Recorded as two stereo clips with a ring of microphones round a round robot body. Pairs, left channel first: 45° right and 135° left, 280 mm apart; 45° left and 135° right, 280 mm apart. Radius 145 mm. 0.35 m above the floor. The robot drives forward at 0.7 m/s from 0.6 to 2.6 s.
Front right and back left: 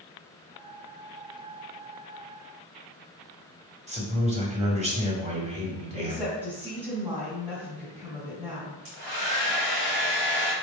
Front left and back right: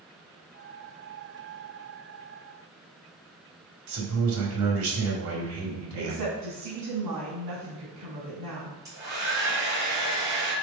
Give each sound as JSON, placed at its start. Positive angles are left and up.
{"t": 3.9, "sound": "a man speaking", "azimuth_deg": -160, "distance_m": 2.0}
{"t": 6.0, "sound": "a woman speaking", "azimuth_deg": -155, "distance_m": 3.0}
{"t": 8.8, "sound": "a hair dryer", "azimuth_deg": 145, "distance_m": 3.0}